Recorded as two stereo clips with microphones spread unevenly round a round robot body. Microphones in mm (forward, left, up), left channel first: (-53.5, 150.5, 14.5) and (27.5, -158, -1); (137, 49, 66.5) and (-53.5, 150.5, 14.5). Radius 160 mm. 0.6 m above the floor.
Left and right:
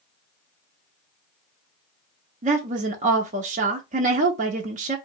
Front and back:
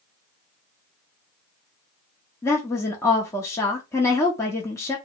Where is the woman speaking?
120° right, 0.6 m.